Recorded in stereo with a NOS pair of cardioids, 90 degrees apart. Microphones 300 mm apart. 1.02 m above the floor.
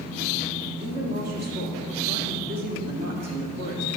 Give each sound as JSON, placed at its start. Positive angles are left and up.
{"t": 0.8, "sound": "a woman speaking", "azimuth_deg": -55, "distance_m": 2.0}